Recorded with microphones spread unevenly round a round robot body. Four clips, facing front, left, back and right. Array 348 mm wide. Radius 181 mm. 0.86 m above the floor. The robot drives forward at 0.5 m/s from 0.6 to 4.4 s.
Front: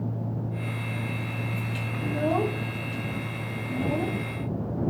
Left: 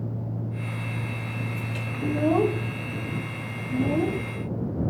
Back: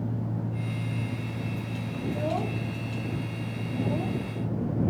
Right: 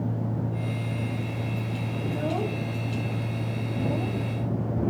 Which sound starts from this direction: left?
A child speaking, at 2.0 s.